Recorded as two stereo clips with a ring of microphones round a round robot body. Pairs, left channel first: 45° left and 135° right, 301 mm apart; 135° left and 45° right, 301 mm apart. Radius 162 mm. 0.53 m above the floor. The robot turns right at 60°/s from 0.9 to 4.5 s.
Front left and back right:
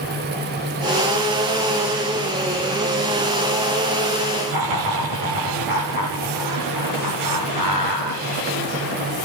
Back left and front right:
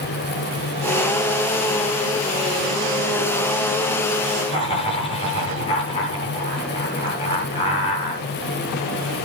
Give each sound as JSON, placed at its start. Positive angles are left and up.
{"t": 4.5, "sound": "laughter", "azimuth_deg": -155, "distance_m": 9.0}